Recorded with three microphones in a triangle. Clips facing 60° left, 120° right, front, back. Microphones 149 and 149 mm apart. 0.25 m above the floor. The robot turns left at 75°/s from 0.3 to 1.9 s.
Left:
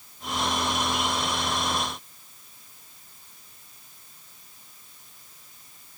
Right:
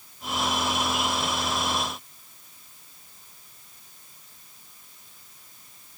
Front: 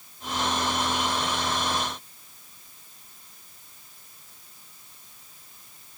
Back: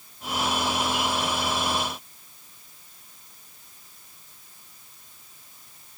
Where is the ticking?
No ticking in this recording.